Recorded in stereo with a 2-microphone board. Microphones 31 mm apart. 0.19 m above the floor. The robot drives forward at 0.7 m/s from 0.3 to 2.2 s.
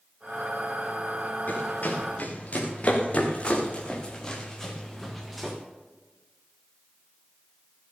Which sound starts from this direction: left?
Running footsteps, at 1.5 s.